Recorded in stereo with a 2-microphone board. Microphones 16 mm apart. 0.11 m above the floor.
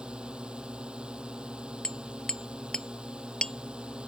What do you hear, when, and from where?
0.0 s a drone: 65° right (ahead or behind)
1.8 s hammering: 50° left (ahead or behind)